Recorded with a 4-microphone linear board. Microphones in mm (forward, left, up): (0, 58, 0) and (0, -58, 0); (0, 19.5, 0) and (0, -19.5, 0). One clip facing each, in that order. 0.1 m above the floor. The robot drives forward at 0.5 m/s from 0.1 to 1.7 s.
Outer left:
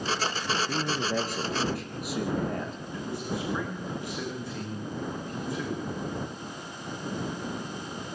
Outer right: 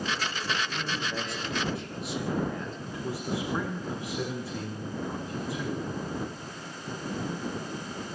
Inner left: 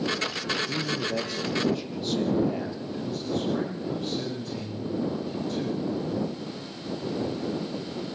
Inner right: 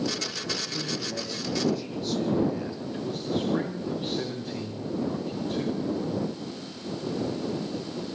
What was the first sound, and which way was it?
A man speaking, 50° left (ahead or behind).